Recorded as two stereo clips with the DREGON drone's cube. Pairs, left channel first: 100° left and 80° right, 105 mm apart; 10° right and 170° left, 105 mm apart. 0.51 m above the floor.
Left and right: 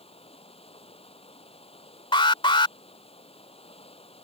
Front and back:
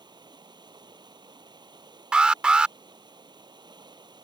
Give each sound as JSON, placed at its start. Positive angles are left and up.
{"t": 0.0, "sound": "running water", "azimuth_deg": 125}
{"t": 2.1, "sound": "an alarm", "azimuth_deg": 90}